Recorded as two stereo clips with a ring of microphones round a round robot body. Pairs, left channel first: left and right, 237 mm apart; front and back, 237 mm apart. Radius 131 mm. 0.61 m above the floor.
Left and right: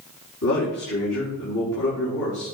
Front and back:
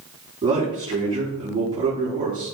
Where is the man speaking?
110° left, 5.5 m.